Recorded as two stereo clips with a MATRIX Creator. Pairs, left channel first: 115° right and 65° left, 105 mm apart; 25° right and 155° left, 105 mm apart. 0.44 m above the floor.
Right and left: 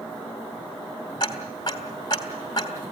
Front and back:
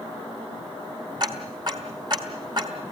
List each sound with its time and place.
1.2 s ticking: 160° right, 2.5 m